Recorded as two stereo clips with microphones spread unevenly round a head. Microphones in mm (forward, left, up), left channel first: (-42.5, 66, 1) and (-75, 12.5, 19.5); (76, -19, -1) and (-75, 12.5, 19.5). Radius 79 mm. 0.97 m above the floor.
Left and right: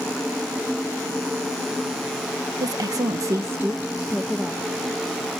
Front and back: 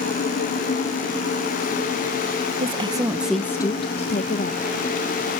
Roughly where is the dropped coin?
No dropped coin in this recording.